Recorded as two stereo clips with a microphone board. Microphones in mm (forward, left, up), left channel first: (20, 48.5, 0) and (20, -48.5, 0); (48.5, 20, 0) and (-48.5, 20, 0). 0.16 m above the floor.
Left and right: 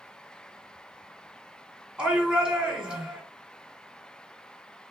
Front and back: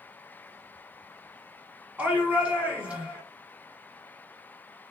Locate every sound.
2.0 s a shout: 145° right, 1.3 m